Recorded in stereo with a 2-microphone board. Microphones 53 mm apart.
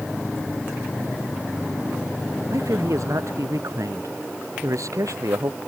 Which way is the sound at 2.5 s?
80° right.